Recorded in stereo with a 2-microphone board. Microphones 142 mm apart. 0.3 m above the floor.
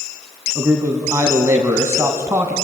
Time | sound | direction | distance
0.6 | a man speaking | 20° right (ahead or behind) | 2 m